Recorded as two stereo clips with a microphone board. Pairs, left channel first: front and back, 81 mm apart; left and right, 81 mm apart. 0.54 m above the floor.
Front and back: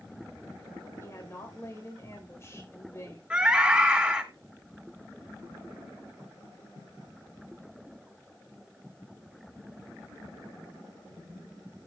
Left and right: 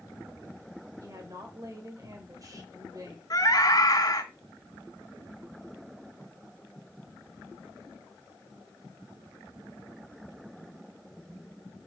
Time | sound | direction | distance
1.0 | a woman speaking | 50° right | 2.5 m
3.3 | a scream | 105° left | 2 m